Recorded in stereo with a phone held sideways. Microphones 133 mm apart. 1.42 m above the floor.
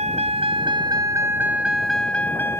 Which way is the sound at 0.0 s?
55° right (ahead or behind).